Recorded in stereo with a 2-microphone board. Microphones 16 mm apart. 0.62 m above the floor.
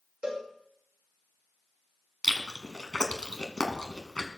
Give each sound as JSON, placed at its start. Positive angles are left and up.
{"t": 0.2, "sound": "a cowbell", "side_deg": -50, "distance_m": 6.5}
{"t": 2.2, "sound": "chewing", "side_deg": 45, "distance_m": 1.9}